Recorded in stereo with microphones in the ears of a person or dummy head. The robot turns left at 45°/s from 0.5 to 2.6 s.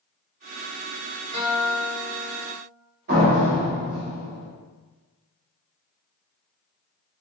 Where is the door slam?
65° right (ahead or behind), 1.9 m.